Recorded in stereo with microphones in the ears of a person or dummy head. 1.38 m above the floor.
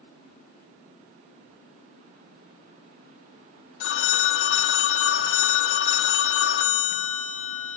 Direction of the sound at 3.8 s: 70° left (ahead or behind).